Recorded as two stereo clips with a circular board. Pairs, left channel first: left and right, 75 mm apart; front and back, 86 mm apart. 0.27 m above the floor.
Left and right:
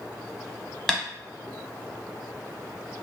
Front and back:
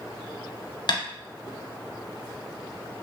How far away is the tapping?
About 0.7 m.